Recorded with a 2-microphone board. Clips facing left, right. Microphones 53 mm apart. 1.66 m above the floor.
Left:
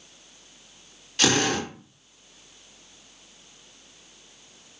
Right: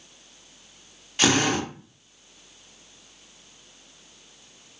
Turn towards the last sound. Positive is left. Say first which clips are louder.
# right 1 dB
turn(degrees=-15)  # may be behind; listen again after turning